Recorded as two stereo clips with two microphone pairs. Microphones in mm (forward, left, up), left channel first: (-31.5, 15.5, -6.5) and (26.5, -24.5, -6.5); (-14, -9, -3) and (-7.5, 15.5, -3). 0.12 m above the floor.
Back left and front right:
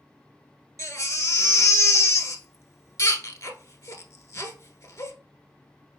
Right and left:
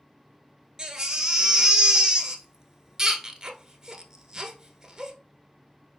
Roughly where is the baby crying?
Behind left.